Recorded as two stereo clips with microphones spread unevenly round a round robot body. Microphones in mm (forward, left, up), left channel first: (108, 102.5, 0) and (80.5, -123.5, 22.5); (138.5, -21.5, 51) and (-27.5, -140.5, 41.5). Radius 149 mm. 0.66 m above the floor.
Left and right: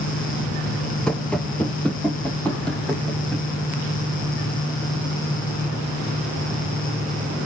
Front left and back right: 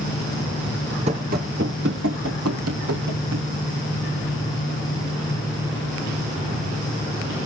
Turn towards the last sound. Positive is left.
turn(degrees=170)